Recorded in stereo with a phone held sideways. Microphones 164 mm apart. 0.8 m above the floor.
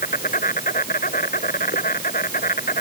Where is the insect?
70° left (ahead or behind).